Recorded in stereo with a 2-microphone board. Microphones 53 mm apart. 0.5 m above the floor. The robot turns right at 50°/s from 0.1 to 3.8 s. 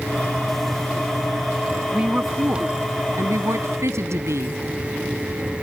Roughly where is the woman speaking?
Behind.